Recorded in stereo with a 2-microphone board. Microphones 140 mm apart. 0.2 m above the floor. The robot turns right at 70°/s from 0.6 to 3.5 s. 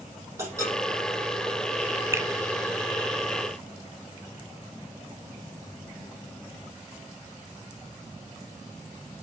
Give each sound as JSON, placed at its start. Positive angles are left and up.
{"t": 0.4, "sound": "a clink", "side_deg": -20, "distance_m": 6.5}
{"t": 2.1, "sound": "a finger snap", "side_deg": -20, "distance_m": 0.8}